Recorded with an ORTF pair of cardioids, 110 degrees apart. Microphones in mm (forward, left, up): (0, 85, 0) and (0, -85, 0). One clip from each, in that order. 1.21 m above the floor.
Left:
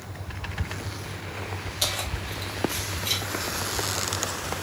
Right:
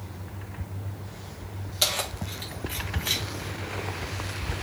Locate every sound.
1.8 s keys jangling: 10° right, 1.7 m; by 3.2 s 10° left, 3 m